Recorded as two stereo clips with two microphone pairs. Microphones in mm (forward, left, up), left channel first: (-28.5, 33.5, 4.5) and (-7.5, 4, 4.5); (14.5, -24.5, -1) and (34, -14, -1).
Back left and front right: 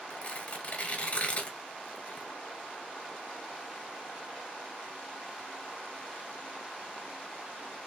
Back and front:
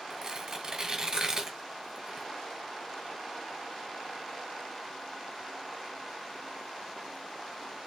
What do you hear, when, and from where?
0.1 s tearing paper: 85° left, 0.9 m